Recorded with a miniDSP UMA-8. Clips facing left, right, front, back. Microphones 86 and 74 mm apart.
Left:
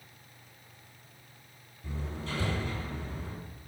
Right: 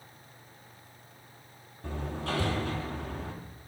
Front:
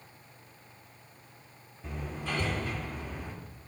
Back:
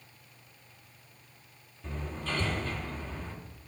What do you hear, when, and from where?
1.8 s hammering: 75° right, 3 m